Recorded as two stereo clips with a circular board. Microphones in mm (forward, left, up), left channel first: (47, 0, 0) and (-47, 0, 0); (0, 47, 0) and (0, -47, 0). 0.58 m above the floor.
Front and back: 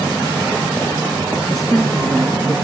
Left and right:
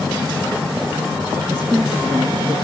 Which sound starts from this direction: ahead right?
A woman speaking, at 1.4 s.